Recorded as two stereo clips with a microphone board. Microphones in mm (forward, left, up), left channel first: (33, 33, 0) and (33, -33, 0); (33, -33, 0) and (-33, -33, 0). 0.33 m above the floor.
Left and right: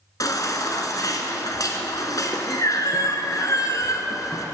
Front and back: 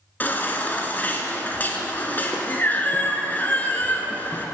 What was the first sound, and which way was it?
A baby crying, 60° left.